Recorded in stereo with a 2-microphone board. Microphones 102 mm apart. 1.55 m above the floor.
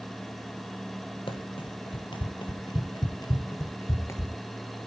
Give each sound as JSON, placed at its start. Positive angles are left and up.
{"t": 1.3, "sound": "running footsteps", "side_deg": 60, "distance_m": 3.0}